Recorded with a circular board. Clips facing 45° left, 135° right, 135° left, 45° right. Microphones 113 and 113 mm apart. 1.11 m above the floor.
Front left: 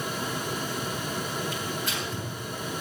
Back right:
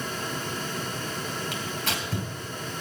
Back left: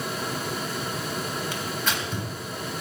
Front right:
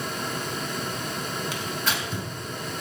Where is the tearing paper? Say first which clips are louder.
Even, even; 125° right, 3 m.